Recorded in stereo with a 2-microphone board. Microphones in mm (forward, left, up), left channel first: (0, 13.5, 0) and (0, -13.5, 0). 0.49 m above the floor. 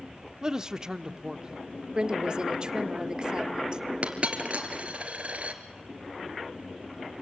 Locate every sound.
0.4 s a man speaking: 20° right (ahead or behind), 0.8 m
1.9 s a woman speaking: 30° right (ahead or behind), 1.1 m
4.0 s a dropped coin: 50° right (ahead or behind), 1.9 m